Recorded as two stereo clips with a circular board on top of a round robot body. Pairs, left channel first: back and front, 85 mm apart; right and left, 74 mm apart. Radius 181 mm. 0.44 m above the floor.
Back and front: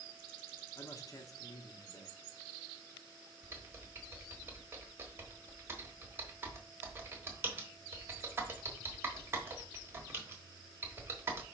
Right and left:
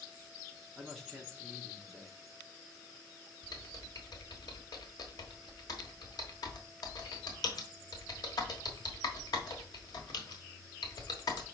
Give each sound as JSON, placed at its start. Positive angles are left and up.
{"t": 0.8, "sound": "a man speaking", "azimuth_deg": -175, "distance_m": 1.1}
{"t": 3.4, "sound": "typing on a keyboard", "azimuth_deg": -65, "distance_m": 1.3}